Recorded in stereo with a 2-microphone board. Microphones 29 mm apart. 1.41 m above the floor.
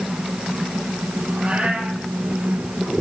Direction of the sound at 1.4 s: 50° right (ahead or behind).